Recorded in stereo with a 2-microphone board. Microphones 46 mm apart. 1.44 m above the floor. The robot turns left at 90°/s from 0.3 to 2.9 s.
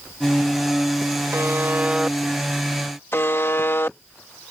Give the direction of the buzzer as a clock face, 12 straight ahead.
3 o'clock.